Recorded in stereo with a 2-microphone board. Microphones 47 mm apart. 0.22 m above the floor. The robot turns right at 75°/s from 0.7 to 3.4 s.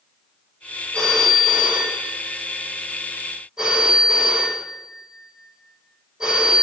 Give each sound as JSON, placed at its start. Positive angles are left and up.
{"t": 0.9, "sound": "a phone ringing", "azimuth_deg": 160, "distance_m": 6.5}